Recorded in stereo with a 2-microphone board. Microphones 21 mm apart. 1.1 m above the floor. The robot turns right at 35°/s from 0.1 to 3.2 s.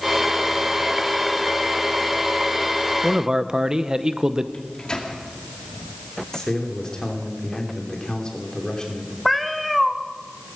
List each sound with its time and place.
3.0 s a man speaking: 35° right (ahead or behind), 0.8 m
4.5 s a microwave: 35° left (ahead or behind), 2 m
6.3 s a man speaking: 35° left (ahead or behind), 3 m
9.2 s a cat meowing: centre (ahead or behind), 0.9 m